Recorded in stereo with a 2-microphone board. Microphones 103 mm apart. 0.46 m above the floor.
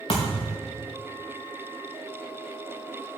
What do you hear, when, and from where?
0.1 s a thud: 50° left (ahead or behind), 3 m